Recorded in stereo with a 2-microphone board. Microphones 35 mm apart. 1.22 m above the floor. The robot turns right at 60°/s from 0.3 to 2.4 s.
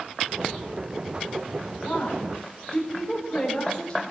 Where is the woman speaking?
125° left, 4 m; by 4.0 s 160° left, 4 m.